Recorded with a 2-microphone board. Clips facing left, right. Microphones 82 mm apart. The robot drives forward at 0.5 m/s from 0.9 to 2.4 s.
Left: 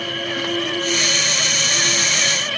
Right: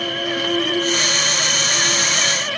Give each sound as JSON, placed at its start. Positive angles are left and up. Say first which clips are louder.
{"t": 0.0, "sound": "an insect", "louder": "right 2 dB", "side_deg": -70, "distance_m": 4.5}